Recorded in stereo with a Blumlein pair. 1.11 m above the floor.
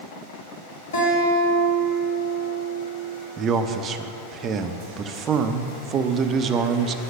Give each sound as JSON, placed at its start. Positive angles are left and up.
{"t": 0.9, "sound": "a guitar", "azimuth_deg": 60, "distance_m": 2.5}
{"t": 3.4, "sound": "a man speaking", "azimuth_deg": -30, "distance_m": 0.5}